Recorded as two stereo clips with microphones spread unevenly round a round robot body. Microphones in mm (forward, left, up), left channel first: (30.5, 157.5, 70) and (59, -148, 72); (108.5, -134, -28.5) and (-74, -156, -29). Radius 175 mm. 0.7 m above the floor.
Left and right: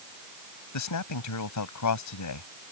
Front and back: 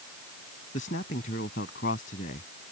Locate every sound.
0.7 s a man speaking: 65° left